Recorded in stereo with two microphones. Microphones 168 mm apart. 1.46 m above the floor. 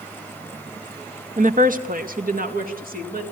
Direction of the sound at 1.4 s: 45° right (ahead or behind).